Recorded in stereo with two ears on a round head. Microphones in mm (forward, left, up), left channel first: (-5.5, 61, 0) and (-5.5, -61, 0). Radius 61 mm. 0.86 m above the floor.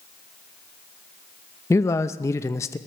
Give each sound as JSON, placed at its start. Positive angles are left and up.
{"t": 1.7, "sound": "a man speaking", "side_deg": 20, "distance_m": 0.5}